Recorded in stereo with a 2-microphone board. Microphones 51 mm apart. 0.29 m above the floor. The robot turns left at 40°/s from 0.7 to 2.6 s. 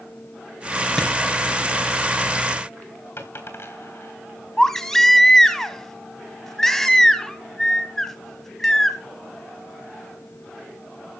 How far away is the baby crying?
About 1.6 m.